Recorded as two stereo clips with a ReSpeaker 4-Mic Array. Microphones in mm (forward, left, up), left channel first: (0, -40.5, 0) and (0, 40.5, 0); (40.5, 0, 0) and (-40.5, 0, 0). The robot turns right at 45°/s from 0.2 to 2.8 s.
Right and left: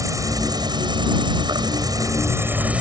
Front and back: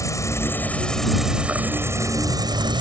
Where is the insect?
50° left; by 2.8 s 165° left.